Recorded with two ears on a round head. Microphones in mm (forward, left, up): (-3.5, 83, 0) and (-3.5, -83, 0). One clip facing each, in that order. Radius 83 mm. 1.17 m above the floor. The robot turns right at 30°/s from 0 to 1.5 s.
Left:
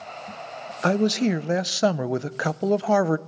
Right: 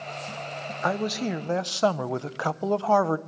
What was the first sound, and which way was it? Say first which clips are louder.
A man speaking: left 7 dB; 35° left (ahead or behind).